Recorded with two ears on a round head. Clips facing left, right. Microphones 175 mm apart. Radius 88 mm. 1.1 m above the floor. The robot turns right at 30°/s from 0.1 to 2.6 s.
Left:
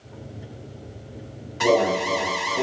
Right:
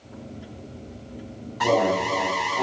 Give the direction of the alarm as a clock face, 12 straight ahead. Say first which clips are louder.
Left 2 dB; 10 o'clock.